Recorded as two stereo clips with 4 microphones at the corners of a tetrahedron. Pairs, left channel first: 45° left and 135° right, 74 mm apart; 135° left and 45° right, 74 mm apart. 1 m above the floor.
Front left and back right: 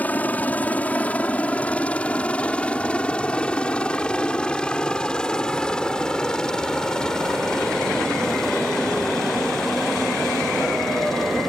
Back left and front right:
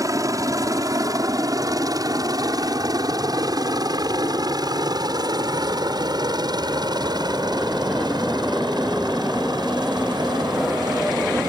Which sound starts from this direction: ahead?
A helicopter, at 0.0 s.